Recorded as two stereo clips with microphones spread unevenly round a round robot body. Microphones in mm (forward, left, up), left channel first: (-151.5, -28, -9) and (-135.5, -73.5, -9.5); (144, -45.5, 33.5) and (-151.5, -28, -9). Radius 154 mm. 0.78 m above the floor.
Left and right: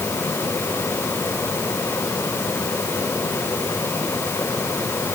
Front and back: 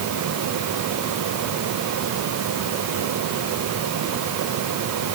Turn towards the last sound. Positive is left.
No sound to turn to.